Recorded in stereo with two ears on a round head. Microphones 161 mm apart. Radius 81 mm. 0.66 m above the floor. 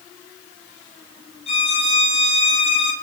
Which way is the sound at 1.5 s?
35° left (ahead or behind).